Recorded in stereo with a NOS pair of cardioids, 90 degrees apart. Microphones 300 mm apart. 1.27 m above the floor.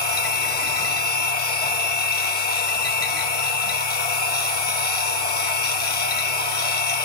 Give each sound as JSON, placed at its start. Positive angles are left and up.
{"t": 0.0, "sound": "a machine running", "azimuth_deg": 30, "distance_m": 1.6}